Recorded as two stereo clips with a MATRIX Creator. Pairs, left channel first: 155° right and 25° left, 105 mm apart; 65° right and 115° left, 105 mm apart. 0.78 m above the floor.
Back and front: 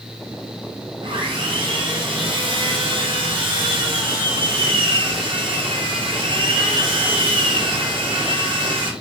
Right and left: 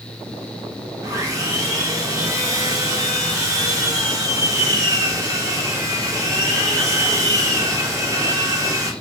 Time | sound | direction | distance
1.0 | sawing | 55° left | 0.6 m